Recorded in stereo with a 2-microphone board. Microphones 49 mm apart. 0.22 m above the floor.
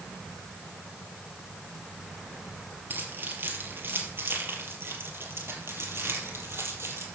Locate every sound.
2.9 s keys jangling: 45° right (ahead or behind), 4 m; by 7.0 s 65° right (ahead or behind), 5.5 m